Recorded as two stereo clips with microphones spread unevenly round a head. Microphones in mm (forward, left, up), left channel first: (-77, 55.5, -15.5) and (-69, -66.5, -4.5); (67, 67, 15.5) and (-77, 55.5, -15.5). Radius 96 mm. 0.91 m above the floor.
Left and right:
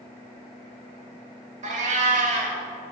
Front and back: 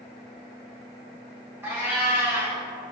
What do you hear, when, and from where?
1.6 s a cat meowing: 90° right, 1.2 m